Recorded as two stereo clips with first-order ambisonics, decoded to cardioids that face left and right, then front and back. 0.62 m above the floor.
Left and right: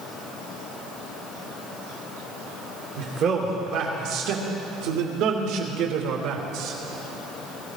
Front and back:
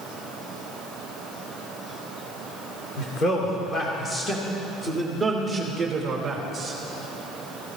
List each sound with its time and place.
3.0 s a man speaking: 50° right, 1.9 m; by 6.8 s 110° right, 2.5 m